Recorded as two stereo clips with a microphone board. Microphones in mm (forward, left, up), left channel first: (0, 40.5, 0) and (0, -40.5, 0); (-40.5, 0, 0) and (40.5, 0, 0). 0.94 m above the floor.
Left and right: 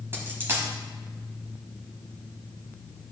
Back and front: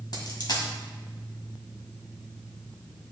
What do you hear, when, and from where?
0.1 s a dropped coin: 150° right, 1.6 m